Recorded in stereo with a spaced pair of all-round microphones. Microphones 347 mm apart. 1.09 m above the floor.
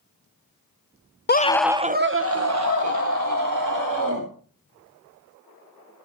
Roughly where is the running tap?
No running tap in this recording.